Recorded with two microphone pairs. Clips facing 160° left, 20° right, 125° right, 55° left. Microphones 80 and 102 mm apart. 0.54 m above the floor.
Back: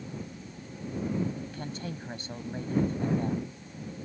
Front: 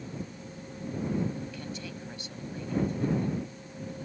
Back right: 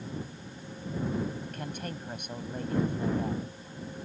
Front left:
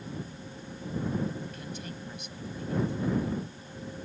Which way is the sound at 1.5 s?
155° right.